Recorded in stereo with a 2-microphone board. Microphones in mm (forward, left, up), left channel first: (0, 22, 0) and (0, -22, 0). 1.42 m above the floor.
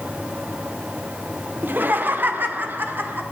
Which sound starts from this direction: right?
Laughter, at 1.6 s.